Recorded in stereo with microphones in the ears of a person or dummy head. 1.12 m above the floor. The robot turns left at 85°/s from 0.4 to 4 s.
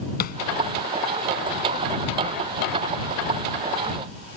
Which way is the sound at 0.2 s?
45° left (ahead or behind).